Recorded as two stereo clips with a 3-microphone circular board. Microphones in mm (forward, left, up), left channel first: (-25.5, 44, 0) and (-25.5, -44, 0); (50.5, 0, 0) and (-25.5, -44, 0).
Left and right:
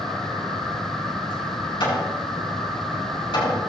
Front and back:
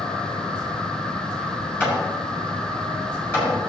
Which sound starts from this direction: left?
Hammering, at 1.8 s.